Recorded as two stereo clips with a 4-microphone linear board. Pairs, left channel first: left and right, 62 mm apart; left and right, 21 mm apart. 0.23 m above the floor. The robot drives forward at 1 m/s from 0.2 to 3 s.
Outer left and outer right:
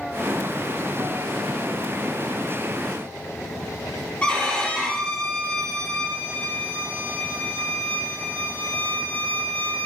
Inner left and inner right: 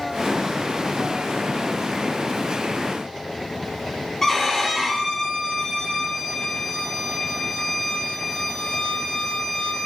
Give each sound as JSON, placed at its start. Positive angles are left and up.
{"t": 4.2, "sound": "a violin", "side_deg": 20, "distance_m": 4.5}